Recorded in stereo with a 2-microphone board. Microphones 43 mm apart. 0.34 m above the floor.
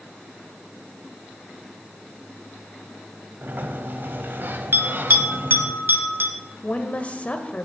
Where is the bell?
55° right (ahead or behind), 1.9 m.